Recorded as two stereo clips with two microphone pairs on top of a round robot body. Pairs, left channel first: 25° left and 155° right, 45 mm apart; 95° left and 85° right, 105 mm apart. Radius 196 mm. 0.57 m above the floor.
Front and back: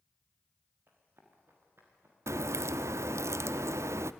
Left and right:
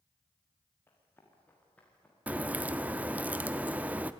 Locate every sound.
0.9 s running footsteps: 165° left, 5.5 m; by 2.2 s 175° left, 6.5 m
2.3 s a crack: 160° right, 0.5 m